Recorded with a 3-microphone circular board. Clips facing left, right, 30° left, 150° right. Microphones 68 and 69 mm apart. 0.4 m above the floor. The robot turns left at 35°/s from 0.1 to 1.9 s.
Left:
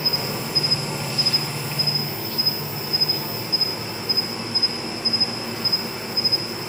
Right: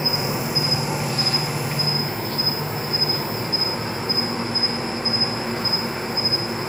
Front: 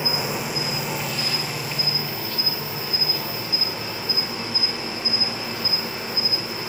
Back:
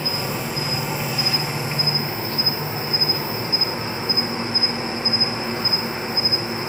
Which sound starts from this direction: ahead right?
An insect, at 0.0 s.